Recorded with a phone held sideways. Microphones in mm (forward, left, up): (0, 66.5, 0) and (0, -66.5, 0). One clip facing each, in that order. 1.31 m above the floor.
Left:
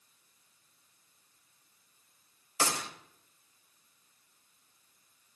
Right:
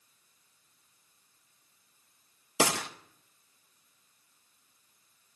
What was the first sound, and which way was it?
A gunshot, 70° right (ahead or behind).